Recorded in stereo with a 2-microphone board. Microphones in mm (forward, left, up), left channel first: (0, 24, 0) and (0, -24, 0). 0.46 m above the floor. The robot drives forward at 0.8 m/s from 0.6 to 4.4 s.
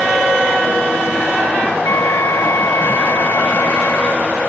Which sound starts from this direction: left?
A flute, at 1.8 s.